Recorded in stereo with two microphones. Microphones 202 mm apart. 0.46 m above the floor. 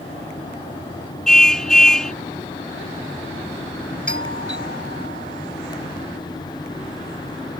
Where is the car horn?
5° left (ahead or behind).